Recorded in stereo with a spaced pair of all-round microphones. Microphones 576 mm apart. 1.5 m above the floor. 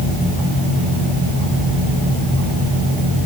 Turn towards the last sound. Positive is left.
No sound to turn to.